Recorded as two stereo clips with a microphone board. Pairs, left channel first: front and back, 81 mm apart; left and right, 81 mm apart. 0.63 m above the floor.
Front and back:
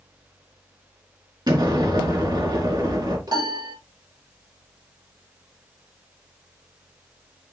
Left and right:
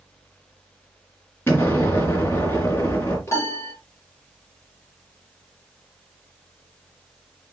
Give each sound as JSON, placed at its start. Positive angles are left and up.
{"t": 1.5, "sound": "an explosion", "azimuth_deg": 155, "distance_m": 3.5}
{"t": 3.3, "sound": "a piano", "azimuth_deg": 145, "distance_m": 3.5}